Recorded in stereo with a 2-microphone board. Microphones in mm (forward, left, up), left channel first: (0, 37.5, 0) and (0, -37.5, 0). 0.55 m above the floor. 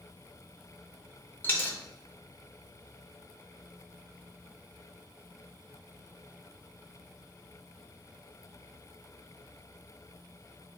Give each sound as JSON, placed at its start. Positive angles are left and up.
{"t": 1.4, "sound": "a dropped coin", "side_deg": 25, "distance_m": 0.6}